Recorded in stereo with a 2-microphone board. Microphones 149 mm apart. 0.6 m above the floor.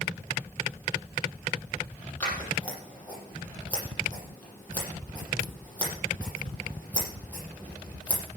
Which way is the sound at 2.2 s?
10° left (ahead or behind).